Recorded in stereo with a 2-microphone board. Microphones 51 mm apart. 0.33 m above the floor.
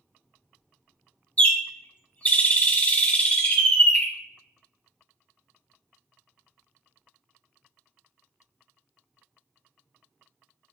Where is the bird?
25° left (ahead or behind), 0.5 m.